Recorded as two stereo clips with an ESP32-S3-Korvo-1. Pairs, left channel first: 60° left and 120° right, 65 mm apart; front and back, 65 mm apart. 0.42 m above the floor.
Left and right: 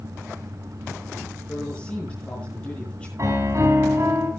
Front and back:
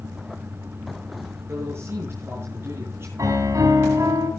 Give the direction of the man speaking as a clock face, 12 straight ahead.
8 o'clock.